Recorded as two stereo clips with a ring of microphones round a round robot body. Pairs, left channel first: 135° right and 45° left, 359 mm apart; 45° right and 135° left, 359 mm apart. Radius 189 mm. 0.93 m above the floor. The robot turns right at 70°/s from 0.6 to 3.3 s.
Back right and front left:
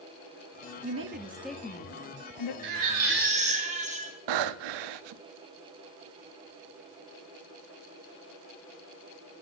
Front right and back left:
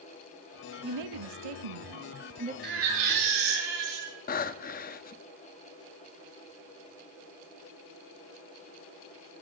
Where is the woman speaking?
90° left, 1.2 m; by 2.5 s 150° right, 1.2 m.